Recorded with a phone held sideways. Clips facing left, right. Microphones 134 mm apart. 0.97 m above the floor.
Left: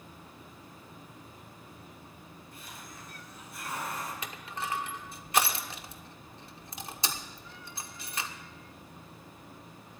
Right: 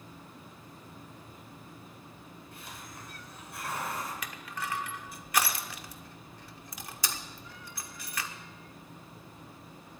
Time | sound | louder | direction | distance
2.5 | a hiss | right 1 dB | 65° right (ahead or behind) | 5 m
4.2 | crushing | left 1 dB | 25° left (ahead or behind) | 1.1 m